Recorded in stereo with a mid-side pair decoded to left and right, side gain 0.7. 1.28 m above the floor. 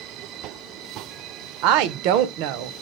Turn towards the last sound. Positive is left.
turn(degrees=-70)